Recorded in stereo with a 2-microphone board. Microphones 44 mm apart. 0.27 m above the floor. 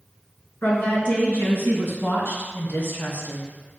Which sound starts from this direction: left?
A woman speaking, at 0.6 s.